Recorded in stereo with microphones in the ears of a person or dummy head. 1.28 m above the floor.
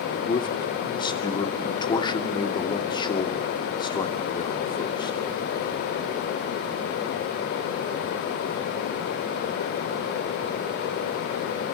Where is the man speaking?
25° left (ahead or behind), 2.5 m.